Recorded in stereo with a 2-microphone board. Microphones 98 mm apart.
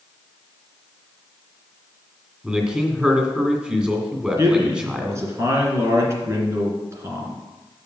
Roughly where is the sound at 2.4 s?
Centre.